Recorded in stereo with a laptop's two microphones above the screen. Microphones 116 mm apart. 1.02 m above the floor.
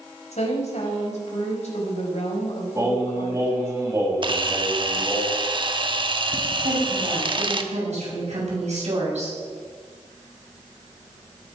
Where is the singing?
30° right (ahead or behind), 3.5 m.